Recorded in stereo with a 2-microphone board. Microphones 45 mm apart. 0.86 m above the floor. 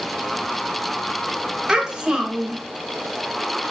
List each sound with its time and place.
1.7 s a child speaking: 15° right (ahead or behind), 0.8 m